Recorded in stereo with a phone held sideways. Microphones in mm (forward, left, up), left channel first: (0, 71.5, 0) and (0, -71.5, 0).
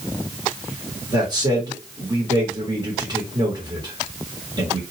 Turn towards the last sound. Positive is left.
turn(degrees=-30)  # may be behind; listen again after turning